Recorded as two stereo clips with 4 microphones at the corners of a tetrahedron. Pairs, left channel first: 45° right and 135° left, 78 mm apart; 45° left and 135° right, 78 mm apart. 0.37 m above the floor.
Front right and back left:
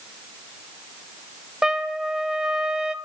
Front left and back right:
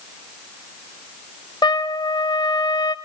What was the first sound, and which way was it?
A trumpet, 55° left.